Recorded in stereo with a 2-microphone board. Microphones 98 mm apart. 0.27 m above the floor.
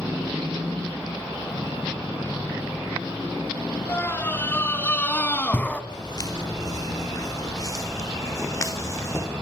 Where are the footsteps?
45° left (ahead or behind), 5.5 m; by 9.3 s 30° left (ahead or behind), 6 m.